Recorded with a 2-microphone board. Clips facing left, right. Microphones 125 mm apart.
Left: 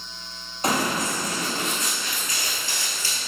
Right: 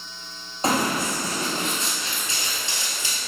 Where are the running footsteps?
30° right (ahead or behind), 1.4 m; by 3.2 s 15° right (ahead or behind), 1.2 m.